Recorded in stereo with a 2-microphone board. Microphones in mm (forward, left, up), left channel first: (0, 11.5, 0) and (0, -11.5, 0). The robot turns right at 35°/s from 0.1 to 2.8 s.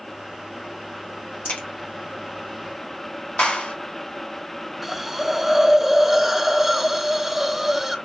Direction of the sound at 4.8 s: 10° right (ahead or behind).